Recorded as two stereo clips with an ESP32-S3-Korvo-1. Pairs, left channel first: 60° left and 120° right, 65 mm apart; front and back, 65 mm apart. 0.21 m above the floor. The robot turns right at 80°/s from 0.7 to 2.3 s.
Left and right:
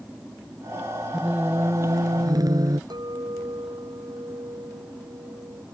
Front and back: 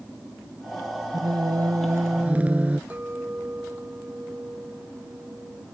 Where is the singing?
155° left; by 2.8 s 110° right.